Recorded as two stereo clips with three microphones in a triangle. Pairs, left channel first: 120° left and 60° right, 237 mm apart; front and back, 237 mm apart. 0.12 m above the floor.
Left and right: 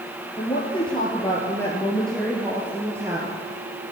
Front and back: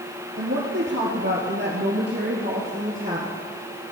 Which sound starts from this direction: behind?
A woman speaking, at 0.3 s.